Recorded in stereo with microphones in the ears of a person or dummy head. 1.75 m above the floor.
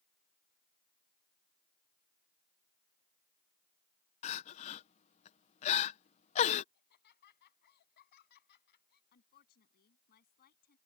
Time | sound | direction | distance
4.2 | crying | 35° left (ahead or behind) | ?
6.7 | laughter | 65° left (ahead or behind) | ?
9.1 | a woman speaking | 60° left (ahead or behind) | ?